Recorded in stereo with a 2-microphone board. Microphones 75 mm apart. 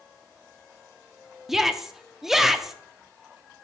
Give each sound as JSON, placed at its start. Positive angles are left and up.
{"t": 1.5, "sound": "a shout", "side_deg": -5, "distance_m": 0.6}